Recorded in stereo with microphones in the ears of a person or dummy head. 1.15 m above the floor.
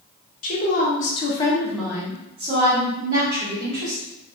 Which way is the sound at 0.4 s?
40° left (ahead or behind).